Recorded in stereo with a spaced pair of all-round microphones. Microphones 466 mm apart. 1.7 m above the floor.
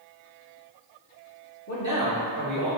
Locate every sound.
1.7 s a man speaking: 35° left (ahead or behind), 1.9 m; by 2.7 s 40° left (ahead or behind), 2.5 m